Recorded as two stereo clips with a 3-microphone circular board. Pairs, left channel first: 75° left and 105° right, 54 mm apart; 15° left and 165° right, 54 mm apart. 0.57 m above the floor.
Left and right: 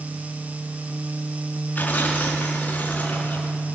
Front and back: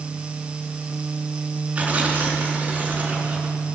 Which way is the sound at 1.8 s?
130° left.